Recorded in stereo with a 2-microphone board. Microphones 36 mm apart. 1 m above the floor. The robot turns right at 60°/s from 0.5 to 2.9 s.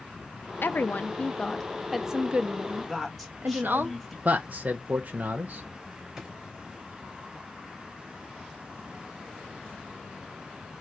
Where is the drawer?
5° right (ahead or behind), 2 m.